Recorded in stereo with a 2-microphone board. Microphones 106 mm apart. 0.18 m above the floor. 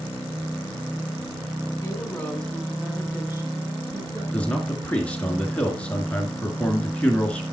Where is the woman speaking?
30° left (ahead or behind), 1.7 m; by 4.2 s 40° right (ahead or behind), 2.5 m.